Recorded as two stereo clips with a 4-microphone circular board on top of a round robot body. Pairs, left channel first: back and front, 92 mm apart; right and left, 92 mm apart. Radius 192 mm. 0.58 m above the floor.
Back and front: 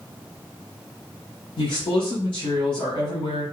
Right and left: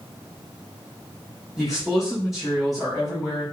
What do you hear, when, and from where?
1.6 s a man speaking: straight behind, 4.5 m